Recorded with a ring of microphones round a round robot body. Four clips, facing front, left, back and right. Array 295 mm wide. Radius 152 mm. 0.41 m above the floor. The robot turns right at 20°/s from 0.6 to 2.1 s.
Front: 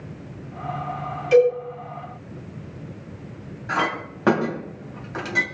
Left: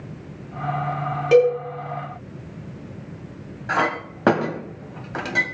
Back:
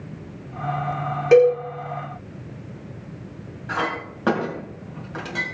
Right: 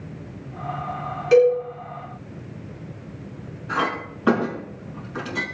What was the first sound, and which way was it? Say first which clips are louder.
A cowbell: even, back 2 dB; 150° left.